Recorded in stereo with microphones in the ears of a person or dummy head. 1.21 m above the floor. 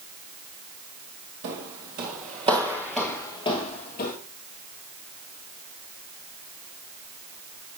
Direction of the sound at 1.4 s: 50° right (ahead or behind).